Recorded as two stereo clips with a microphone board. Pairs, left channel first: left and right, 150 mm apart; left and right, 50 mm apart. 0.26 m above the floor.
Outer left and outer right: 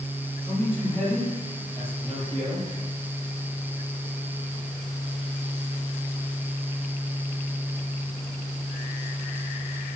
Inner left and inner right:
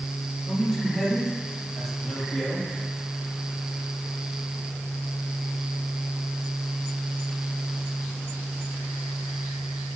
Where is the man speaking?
15° left (ahead or behind), 6.5 m.